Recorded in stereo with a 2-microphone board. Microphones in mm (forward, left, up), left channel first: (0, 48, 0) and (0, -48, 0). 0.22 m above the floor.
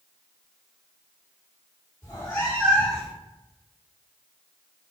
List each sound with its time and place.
2.0 s a cat meowing: 30° left (ahead or behind), 1.4 m; by 3.1 s 5° right (ahead or behind), 0.5 m